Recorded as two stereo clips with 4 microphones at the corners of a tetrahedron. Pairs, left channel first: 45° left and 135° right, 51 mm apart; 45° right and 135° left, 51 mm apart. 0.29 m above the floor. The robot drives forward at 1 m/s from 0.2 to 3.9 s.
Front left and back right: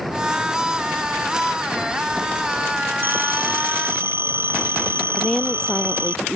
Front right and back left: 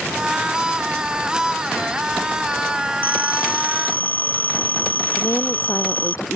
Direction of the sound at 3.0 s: 90° right.